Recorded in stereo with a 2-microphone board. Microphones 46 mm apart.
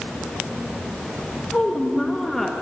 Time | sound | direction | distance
1.5 | a woman speaking | 25° left (ahead or behind) | 1.0 m